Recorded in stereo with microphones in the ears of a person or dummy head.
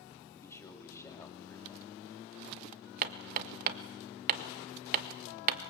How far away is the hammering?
About 1.4 m.